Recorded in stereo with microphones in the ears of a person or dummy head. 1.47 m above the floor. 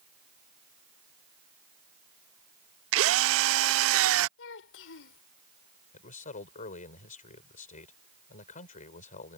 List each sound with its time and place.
2.9 s a drill: 75° right (ahead or behind)
4.4 s a child speaking: 70° left (ahead or behind)
5.9 s a man speaking: 40° left (ahead or behind)